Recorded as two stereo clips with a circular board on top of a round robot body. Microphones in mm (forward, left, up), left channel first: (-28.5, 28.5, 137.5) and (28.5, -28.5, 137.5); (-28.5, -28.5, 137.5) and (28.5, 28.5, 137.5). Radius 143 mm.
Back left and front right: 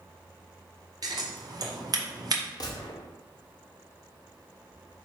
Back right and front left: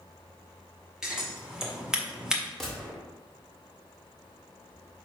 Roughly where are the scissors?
Ahead right.